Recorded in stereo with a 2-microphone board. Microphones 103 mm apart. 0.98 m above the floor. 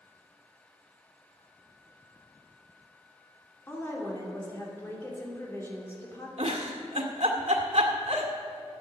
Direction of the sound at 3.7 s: 20° left (ahead or behind).